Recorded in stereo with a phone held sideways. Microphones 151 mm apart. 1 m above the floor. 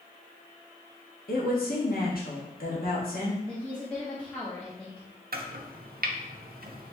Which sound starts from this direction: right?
Chopping, at 5.3 s.